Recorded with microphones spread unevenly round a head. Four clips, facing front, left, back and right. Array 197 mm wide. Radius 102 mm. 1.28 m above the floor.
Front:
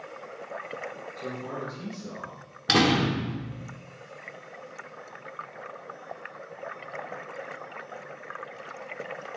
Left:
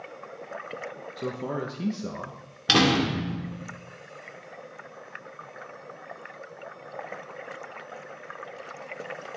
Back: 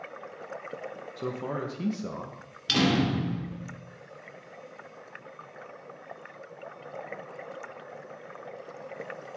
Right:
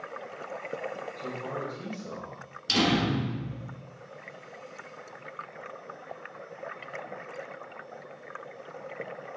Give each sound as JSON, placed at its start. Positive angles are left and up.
{"t": 1.2, "sound": "a man speaking", "azimuth_deg": 120, "distance_m": 1.2}
{"t": 2.7, "sound": "a door slam", "azimuth_deg": 45, "distance_m": 2.5}